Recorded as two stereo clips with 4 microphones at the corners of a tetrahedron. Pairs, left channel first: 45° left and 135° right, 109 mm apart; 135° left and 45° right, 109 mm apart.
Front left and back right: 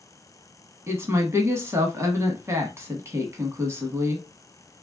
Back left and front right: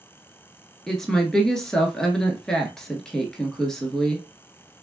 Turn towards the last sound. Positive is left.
turn(degrees=-145)